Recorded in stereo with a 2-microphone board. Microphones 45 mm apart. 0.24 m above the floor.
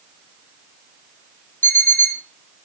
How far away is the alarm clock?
About 1.7 m.